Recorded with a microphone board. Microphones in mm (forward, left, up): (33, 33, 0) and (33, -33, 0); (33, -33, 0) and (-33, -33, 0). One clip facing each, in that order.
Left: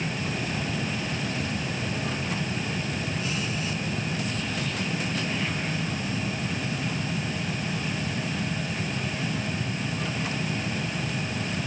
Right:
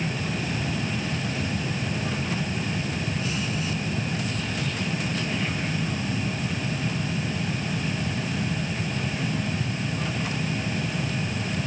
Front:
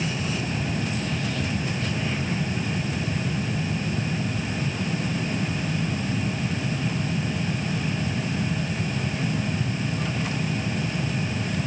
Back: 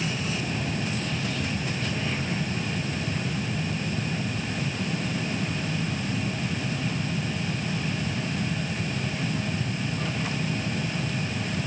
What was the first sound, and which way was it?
Only background noise.